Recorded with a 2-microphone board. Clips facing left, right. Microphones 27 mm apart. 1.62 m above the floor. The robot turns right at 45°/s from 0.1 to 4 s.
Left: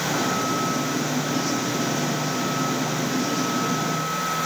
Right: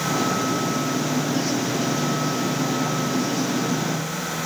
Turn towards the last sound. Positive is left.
No sound to turn to.